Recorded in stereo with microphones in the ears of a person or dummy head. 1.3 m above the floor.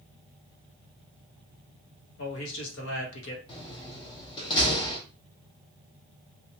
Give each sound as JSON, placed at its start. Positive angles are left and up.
{"t": 2.2, "sound": "a man speaking", "side_deg": 70, "distance_m": 1.2}
{"t": 3.5, "sound": "a door slam", "side_deg": 25, "distance_m": 0.8}